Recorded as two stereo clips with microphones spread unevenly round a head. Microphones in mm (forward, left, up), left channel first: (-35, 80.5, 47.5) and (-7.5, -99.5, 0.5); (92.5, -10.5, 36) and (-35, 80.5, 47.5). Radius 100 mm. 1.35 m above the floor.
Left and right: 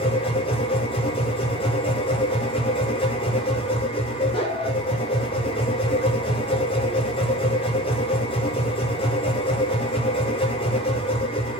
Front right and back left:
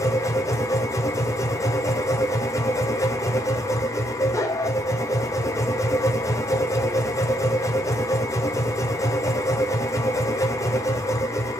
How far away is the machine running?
About 1.7 m.